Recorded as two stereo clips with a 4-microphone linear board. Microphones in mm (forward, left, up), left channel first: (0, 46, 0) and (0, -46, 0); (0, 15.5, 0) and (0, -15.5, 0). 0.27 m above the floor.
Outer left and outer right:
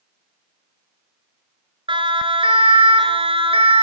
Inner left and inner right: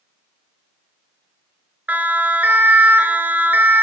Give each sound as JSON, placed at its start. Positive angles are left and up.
{"t": 1.9, "sound": "a siren", "side_deg": -65, "distance_m": 5.0}